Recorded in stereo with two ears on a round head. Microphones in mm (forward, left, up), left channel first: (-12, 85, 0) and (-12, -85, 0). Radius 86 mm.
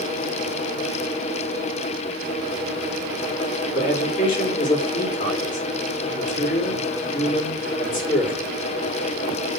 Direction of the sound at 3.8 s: 45° left (ahead or behind).